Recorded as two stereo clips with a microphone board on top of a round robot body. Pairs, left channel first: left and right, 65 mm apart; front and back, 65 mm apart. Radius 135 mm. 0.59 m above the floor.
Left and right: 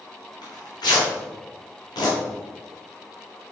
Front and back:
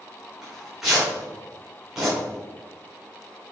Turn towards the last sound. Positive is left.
turn(degrees=95)